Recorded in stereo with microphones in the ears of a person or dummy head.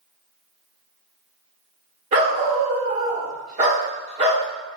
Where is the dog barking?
45° right (ahead or behind), 1.8 m.